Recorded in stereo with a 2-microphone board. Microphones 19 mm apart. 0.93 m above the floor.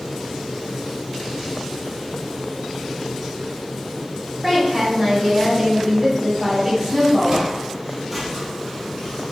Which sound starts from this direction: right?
Footsteps, at 7.3 s.